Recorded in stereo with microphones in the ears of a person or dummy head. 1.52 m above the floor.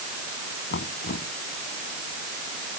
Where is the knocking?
65° left (ahead or behind).